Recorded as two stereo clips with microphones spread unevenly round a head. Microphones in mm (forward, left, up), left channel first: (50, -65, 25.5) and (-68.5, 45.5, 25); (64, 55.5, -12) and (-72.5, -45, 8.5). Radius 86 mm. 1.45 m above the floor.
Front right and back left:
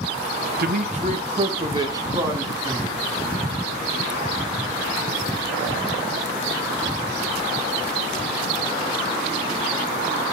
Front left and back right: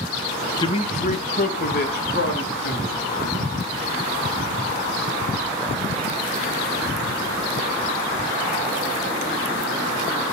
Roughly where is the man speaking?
Left.